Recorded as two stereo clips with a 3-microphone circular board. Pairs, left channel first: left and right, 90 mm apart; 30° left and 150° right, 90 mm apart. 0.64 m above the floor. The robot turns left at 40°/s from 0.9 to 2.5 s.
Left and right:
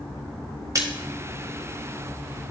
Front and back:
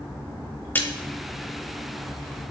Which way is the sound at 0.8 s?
35° right.